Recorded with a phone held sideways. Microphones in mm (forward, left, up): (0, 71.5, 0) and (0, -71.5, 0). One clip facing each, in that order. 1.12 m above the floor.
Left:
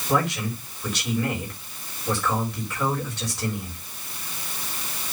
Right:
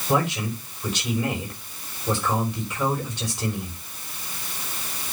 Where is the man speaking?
15° right (ahead or behind), 4 m.